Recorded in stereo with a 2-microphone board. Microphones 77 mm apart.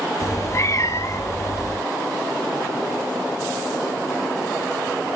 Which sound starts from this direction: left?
A cat meowing, at 0.2 s.